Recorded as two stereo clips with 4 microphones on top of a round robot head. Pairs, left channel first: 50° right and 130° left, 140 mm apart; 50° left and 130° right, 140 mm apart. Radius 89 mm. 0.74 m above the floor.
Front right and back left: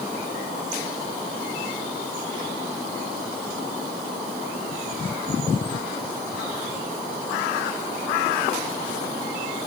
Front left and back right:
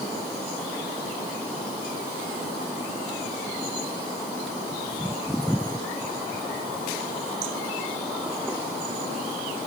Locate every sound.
Only background noise.